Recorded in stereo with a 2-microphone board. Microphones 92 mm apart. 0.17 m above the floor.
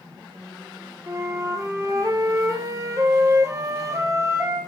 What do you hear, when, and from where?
1.1 s a flute: 35° right (ahead or behind), 2 m